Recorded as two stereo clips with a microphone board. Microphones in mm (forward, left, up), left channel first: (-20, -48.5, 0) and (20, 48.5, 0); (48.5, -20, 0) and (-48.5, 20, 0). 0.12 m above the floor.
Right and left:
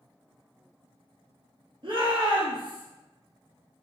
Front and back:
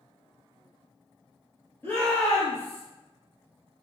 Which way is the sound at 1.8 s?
45° left.